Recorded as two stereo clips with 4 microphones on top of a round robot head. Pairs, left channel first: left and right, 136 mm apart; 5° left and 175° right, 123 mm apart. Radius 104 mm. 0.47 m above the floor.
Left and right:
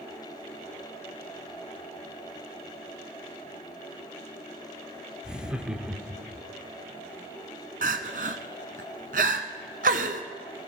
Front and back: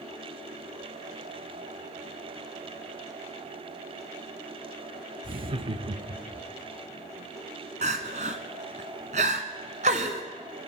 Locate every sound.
5.2 s laughter: 170° right, 1.0 m
7.8 s crying: 130° right, 1.0 m